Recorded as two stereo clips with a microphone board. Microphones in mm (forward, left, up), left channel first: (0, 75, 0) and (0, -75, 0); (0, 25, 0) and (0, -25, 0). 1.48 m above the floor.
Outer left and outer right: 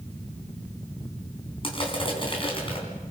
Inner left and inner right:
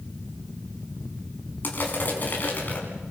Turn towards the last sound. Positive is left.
turn(degrees=35)  # may be behind; listen again after turning